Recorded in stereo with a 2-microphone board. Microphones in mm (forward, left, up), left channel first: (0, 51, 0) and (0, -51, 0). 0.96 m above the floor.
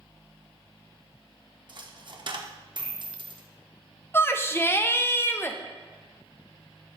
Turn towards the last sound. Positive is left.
turn(degrees=20)  # may be behind; listen again after turning